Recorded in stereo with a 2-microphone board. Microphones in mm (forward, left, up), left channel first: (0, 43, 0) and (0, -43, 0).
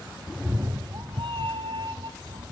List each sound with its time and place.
0.3 s a cat meowing: 5° left (ahead or behind), 0.6 m; by 2.5 s 85° right, 2 m